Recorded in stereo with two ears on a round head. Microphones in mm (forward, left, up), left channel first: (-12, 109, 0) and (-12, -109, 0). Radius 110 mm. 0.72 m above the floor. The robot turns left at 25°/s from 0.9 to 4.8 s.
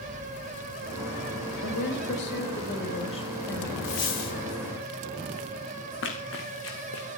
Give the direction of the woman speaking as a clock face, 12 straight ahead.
10 o'clock.